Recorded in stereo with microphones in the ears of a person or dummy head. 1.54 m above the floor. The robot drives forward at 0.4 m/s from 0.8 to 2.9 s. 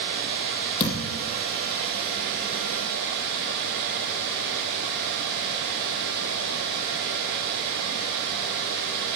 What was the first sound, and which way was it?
A thud, 40° left (ahead or behind).